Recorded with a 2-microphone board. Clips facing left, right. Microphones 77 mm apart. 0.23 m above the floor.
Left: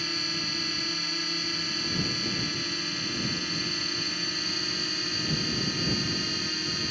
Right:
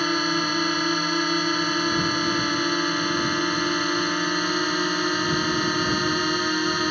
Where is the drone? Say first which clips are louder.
Right 12 dB; 60° right (ahead or behind).